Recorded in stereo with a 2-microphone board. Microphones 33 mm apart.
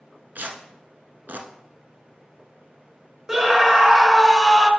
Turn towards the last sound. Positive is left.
turn(degrees=-10)  # may be behind; listen again after turning